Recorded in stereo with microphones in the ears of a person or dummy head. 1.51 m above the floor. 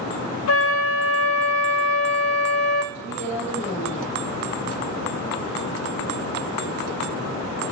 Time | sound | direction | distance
0.5 | a flute | 85° left | 0.7 m
2.9 | a woman speaking | 85° left | 6 m